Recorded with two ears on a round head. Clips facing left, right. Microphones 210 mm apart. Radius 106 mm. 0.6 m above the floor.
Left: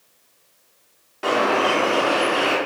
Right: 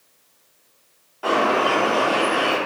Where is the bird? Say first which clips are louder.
Even; 30° left (ahead or behind), 0.6 m.